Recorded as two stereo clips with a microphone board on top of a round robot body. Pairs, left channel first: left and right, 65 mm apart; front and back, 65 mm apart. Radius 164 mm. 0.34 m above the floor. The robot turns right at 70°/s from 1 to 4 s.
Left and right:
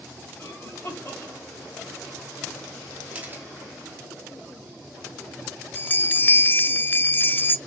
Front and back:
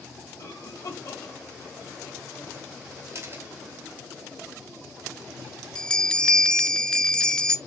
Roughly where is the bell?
Ahead left.